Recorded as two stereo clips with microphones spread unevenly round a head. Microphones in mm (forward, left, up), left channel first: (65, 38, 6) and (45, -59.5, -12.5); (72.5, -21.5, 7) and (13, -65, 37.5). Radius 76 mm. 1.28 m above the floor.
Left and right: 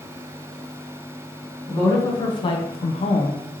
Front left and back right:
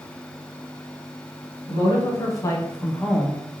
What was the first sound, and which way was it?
A woman speaking, 20° left.